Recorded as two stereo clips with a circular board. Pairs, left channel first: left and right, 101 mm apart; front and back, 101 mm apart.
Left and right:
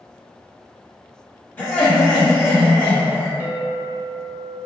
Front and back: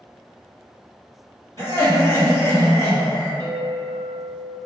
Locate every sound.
1.6 s laughter: 150° left, 1.7 m
3.4 s a clink: 155° right, 0.9 m